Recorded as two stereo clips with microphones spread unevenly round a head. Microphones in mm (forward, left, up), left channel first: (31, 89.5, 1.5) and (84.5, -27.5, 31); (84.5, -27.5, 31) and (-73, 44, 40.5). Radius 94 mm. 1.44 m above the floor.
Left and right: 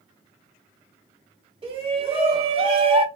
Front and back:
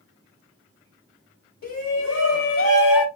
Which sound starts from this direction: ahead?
A shout, at 1.6 s.